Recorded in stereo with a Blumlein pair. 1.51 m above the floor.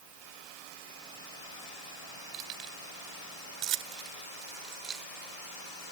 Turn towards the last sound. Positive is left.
turn(degrees=-30)